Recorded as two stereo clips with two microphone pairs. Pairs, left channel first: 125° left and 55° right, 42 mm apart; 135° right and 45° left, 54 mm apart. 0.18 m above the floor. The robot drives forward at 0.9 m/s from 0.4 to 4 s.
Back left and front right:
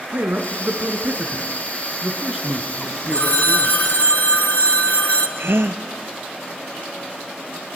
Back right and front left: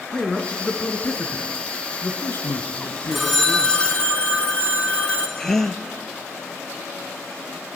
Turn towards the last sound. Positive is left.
turn(degrees=-55)